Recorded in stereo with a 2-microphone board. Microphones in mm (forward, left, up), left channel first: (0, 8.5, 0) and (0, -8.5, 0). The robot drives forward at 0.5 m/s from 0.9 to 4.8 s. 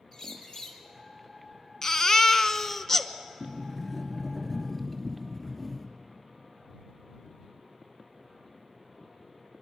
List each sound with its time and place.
0.1 s a bird: 45° left (ahead or behind), 3 m
1.8 s a baby crying: 30° left (ahead or behind), 0.7 m; by 3.1 s 20° left (ahead or behind), 0.9 m
3.4 s a sliding door: 15° left (ahead or behind), 2 m; by 5.9 s 10° left (ahead or behind), 2.5 m